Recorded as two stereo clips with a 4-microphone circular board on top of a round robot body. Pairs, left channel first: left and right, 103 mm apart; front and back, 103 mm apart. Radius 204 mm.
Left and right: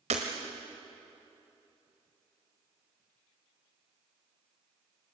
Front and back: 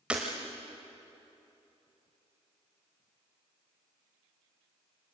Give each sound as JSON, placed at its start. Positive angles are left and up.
{"t": 0.1, "sound": "breaking glass", "azimuth_deg": -100, "distance_m": 0.9}